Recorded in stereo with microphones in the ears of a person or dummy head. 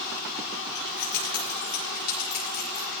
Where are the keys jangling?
55° left (ahead or behind), 6.5 m.